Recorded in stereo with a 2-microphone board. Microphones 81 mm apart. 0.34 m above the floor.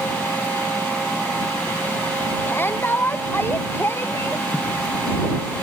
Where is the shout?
25° left (ahead or behind); by 4.5 s 30° left (ahead or behind).